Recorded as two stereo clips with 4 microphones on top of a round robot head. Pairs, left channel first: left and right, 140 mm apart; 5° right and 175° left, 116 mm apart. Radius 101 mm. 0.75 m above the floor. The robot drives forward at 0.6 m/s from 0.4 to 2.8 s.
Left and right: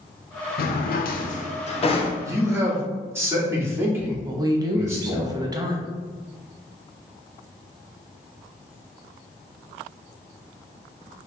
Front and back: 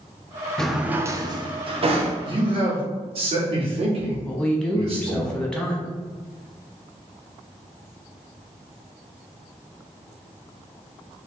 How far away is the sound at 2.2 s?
About 1.3 m.